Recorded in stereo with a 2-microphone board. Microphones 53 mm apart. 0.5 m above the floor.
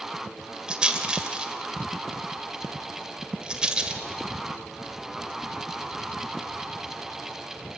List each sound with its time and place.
0.7 s a rattle: 15° right (ahead or behind), 2 m